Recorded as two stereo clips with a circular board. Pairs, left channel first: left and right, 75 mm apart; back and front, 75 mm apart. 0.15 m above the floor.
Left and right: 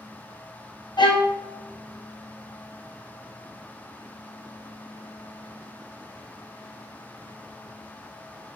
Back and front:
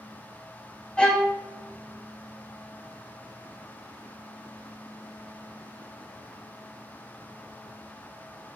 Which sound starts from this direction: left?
A violin, at 1.0 s.